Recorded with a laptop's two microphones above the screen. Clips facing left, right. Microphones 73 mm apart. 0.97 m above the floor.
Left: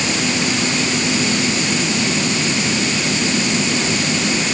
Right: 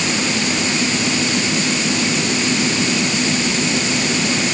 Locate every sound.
Only background noise.